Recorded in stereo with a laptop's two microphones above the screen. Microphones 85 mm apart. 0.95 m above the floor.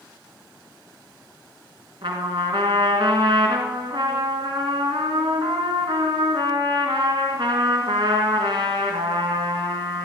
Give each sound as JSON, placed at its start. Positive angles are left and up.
{"t": 2.0, "sound": "a trumpet", "side_deg": -70, "distance_m": 2.5}